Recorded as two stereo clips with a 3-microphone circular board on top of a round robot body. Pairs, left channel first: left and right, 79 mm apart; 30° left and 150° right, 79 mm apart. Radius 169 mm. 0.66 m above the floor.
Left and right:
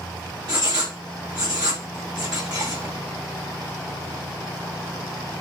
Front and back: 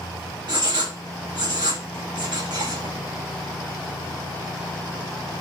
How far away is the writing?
About 2.5 m.